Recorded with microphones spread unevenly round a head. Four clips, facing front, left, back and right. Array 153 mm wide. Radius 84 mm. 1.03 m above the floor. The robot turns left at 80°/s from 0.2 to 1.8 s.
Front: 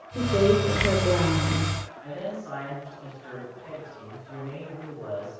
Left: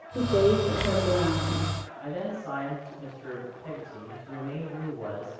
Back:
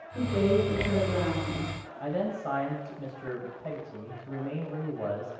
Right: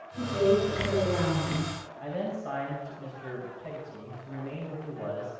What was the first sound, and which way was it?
A woman speaking, 70° left.